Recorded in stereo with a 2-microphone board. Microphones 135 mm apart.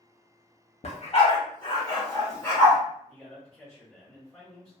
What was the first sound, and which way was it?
A dog barking, 55° left (ahead or behind).